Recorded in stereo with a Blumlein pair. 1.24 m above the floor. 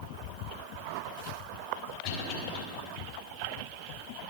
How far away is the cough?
About 3.5 m.